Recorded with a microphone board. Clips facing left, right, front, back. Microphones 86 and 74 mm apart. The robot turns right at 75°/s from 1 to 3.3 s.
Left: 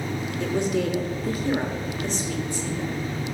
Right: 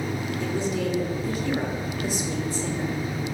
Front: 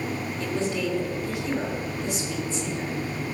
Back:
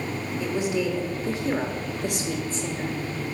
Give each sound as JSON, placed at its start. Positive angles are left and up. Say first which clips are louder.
{"t": 0.4, "sound": "a woman speaking", "louder": "left 4 dB, back 2 dB", "azimuth_deg": 105, "distance_m": 1.3}